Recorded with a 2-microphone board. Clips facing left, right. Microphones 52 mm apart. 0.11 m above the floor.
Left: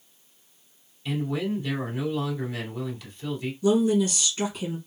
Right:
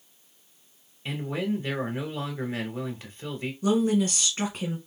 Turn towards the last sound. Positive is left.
turn(degrees=-45)  # may be behind; listen again after turning